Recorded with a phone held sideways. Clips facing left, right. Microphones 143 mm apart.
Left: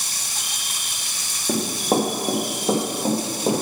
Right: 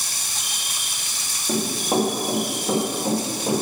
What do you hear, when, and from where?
1.5 s running footsteps: 25° left (ahead or behind), 2.5 m; by 3.6 s 45° left (ahead or behind), 3.5 m